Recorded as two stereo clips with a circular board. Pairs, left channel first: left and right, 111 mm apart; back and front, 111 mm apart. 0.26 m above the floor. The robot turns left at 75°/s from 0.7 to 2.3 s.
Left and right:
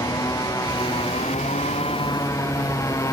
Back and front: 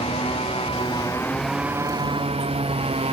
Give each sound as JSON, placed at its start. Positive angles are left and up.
{"t": 0.0, "sound": "a motorcycle", "azimuth_deg": 150}